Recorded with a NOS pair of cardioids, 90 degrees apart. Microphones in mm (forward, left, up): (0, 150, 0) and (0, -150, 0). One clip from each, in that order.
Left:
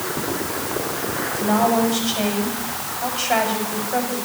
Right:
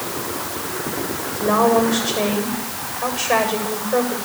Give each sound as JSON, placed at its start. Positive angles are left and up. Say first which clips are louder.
{"t": 1.4, "sound": "a woman speaking", "louder": "right 3 dB", "azimuth_deg": -30, "distance_m": 7.5}